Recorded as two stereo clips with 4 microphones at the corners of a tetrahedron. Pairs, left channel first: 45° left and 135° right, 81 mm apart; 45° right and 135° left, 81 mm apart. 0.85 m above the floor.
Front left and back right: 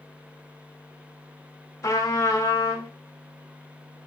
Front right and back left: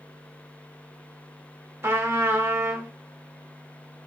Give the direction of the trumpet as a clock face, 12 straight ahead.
9 o'clock.